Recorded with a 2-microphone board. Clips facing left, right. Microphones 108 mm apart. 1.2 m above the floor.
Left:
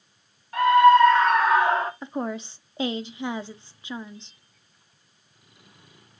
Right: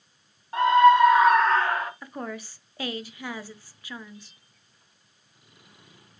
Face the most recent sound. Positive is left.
turn(degrees=25)  # may be behind; listen again after turning